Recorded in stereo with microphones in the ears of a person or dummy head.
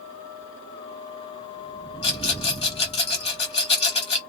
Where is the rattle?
30° left (ahead or behind), 1.2 m.